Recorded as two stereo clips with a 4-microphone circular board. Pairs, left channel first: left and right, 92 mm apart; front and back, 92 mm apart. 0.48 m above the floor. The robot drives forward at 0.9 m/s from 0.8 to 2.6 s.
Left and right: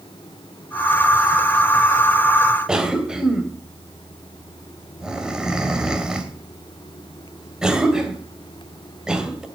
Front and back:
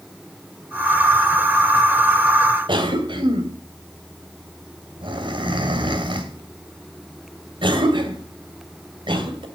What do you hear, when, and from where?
2.7 s a cough: 170° right, 2.5 m